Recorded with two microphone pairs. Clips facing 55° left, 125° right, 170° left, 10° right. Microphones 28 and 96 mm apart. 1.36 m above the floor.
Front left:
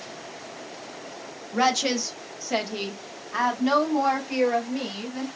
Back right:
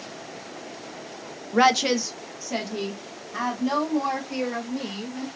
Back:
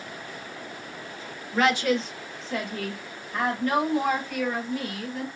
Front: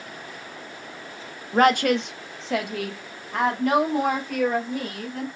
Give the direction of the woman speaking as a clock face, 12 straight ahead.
2 o'clock.